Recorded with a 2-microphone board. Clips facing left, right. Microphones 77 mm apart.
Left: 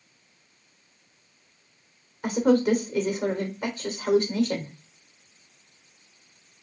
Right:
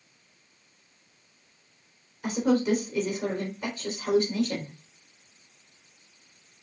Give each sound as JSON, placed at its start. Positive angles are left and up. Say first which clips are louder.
{"t": 2.2, "sound": "a woman speaking", "louder": "left 3 dB", "side_deg": 45, "distance_m": 3.0}